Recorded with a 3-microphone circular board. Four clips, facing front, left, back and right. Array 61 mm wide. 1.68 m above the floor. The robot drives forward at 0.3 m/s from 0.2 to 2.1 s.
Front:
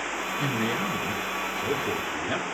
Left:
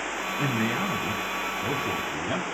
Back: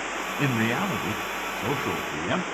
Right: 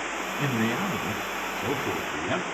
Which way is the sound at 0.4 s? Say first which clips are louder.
Even, back 4 dB; 175° left.